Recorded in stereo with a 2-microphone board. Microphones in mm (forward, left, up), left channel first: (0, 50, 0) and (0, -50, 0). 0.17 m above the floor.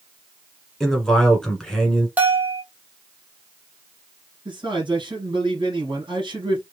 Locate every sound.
0.8 s a man speaking: 5° left (ahead or behind), 1.5 m
2.2 s a bell: 15° right (ahead or behind), 1.0 m
4.5 s a man speaking: 50° right (ahead or behind), 2.5 m